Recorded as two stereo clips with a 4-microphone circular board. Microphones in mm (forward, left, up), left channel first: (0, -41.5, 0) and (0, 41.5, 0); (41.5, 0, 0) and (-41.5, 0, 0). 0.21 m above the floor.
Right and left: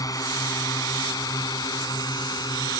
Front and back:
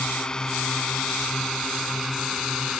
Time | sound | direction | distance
0.0 | a drone | 75° right | ?